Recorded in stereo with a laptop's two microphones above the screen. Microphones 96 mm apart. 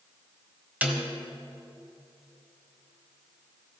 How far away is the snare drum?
About 1.5 m.